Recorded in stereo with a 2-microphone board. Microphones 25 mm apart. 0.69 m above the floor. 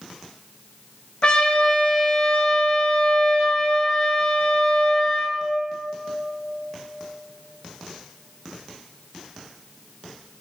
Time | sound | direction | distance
1.2 | a trumpet | 45° left (ahead or behind) | 4 m